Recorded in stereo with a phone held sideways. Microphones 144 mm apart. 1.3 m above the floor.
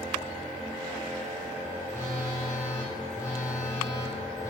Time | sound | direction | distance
1.9 | a phone buzzing | 20° left (ahead or behind) | 0.7 m